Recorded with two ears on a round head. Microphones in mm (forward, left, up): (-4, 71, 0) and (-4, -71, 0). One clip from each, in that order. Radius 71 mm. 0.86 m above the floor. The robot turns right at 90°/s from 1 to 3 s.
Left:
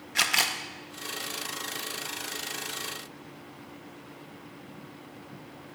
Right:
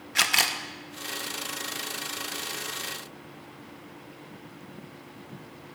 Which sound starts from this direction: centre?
A camera shutter, at 0.1 s.